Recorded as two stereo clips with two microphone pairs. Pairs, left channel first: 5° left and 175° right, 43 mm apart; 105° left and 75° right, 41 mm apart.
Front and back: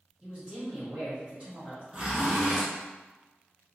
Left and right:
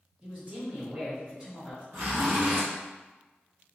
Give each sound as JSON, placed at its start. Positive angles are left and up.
{"t": 0.2, "sound": "a man speaking", "azimuth_deg": -130, "distance_m": 1.4}
{"t": 1.9, "sound": "a zipper", "azimuth_deg": -105, "distance_m": 1.3}